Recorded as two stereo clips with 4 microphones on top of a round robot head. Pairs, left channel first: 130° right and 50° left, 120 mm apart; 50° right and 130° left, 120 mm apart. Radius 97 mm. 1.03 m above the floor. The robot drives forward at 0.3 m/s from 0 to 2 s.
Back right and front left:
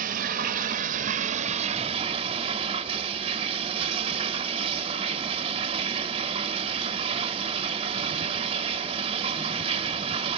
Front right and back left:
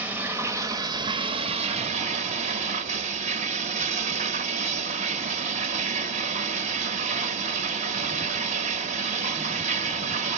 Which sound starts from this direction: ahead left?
Running water, at 0.0 s.